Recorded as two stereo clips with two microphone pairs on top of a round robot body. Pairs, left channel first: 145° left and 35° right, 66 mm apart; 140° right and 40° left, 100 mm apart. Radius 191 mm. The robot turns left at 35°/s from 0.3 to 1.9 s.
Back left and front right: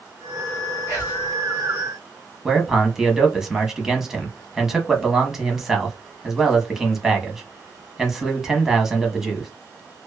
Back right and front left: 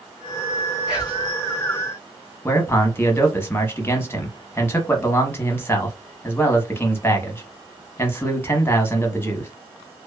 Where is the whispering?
125° left, 1.7 m; by 1.3 s 110° left, 1.7 m.